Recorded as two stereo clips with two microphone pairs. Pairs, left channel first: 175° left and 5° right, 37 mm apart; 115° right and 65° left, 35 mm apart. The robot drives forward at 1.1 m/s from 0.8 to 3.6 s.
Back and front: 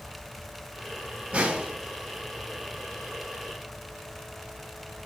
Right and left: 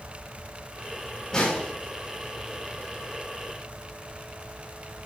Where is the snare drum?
45° right, 2.5 m; by 1.7 s 50° right, 2.5 m.